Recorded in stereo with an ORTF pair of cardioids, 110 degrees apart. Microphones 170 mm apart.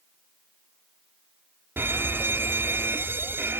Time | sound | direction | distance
1.8 | a fire alarm | 15° right | ?